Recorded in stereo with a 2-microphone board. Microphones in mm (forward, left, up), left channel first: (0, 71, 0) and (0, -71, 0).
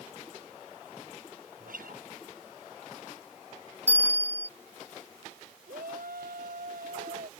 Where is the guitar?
80° right.